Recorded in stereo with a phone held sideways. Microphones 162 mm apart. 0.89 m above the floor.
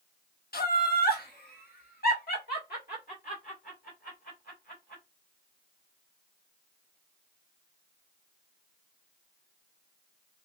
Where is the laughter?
70° left (ahead or behind), 0.9 m; by 5.0 s 65° left (ahead or behind), 3 m.